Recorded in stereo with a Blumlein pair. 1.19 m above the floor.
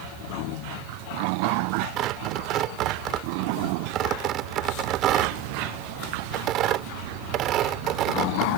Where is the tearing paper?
35° right.